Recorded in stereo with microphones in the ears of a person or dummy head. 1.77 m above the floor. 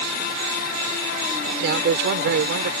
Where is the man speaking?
60° right (ahead or behind).